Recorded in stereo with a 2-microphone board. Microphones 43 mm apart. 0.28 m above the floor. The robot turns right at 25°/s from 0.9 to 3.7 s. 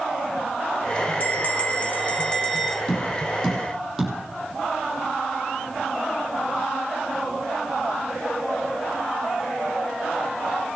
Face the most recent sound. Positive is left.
turn(degrees=-5)  # may be behind; listen again after turning